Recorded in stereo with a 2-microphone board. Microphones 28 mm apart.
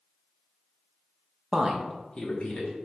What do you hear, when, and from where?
1.5 s a woman speaking: 30° right (ahead or behind), 0.6 m; by 2.7 s 55° left (ahead or behind), 1.1 m